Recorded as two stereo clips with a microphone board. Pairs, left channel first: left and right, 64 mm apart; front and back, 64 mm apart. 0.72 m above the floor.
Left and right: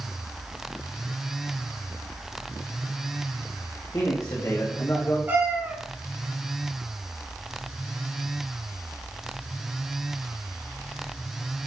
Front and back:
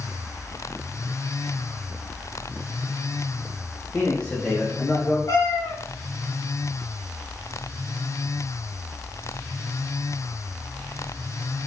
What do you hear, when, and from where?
3.9 s a man speaking: 65° left, 3.5 m; by 5.2 s 60° left, 2.0 m
5.3 s a cat meowing: 30° right, 3 m